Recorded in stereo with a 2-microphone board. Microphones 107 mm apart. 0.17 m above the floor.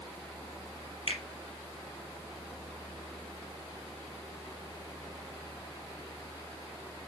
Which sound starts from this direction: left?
A finger snap, at 1.1 s.